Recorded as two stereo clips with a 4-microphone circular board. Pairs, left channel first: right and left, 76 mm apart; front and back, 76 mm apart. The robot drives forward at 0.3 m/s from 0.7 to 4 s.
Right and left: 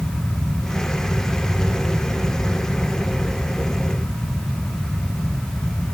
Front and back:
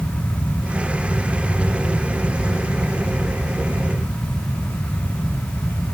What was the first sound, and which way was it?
Only background noise.